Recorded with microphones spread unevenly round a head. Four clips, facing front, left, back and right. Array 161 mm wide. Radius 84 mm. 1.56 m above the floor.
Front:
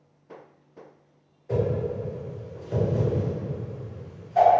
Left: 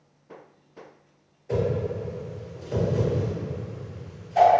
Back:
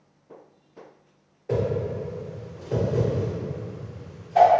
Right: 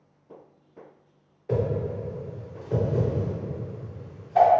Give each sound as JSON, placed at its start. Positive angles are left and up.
{"t": 1.5, "sound": "a whoosh", "azimuth_deg": -135, "distance_m": 1.1}